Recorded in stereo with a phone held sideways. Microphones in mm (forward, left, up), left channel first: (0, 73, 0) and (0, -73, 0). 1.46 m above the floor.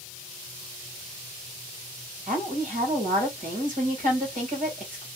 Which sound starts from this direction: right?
A woman speaking, at 2.3 s.